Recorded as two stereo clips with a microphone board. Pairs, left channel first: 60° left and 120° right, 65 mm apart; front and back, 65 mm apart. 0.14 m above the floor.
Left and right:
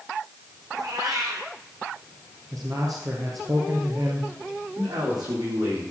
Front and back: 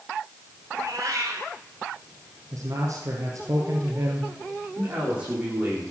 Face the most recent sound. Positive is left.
turn(degrees=-115)